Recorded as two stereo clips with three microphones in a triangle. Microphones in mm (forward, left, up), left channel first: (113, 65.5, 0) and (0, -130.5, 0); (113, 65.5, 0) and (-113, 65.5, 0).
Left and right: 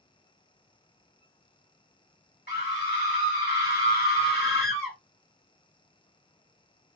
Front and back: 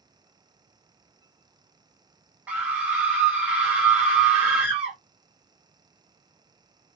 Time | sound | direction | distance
2.5 | a scream | 95° left | 2.5 m